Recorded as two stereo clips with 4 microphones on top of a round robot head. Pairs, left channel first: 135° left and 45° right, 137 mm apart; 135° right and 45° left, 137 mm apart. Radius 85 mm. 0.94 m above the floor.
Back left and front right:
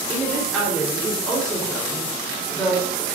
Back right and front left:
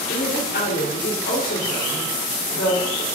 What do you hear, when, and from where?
0.1 s a woman speaking: 140° right, 3 m